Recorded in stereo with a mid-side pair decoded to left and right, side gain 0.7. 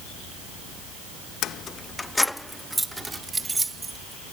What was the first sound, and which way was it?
Keys jangling, 50° left.